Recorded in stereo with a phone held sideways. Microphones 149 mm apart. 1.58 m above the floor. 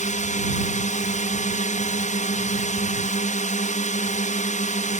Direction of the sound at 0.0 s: 55° left (ahead or behind).